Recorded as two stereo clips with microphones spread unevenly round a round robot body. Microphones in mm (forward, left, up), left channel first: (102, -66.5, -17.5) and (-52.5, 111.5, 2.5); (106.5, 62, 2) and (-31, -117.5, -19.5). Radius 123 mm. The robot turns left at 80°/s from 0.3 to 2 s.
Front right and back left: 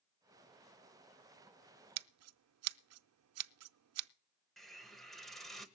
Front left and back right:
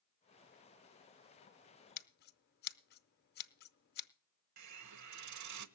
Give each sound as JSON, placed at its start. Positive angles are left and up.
{"t": 2.0, "sound": "scissors", "azimuth_deg": 110, "distance_m": 0.6}
{"t": 4.6, "sound": "a hiss", "azimuth_deg": -140, "distance_m": 0.9}